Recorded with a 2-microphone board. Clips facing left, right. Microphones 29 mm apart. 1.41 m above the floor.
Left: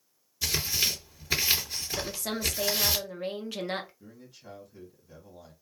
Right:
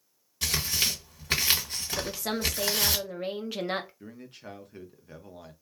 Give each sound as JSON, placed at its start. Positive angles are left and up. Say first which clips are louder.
{"t": 0.4, "sound": "tearing paper", "louder": "even", "side_deg": -60, "distance_m": 1.5}
{"t": 2.0, "sound": "a woman speaking", "louder": "right 3 dB", "side_deg": -5, "distance_m": 0.7}
{"t": 4.0, "sound": "a man speaking", "louder": "right 5 dB", "side_deg": -55, "distance_m": 0.9}